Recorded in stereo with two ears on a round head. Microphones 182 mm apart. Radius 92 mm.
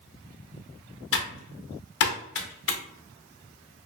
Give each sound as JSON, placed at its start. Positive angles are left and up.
{"t": 1.1, "sound": "typing on a keyboard", "side_deg": 60, "distance_m": 0.6}